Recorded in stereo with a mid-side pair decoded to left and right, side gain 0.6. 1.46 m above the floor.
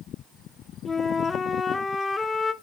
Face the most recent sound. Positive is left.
turn(degrees=25)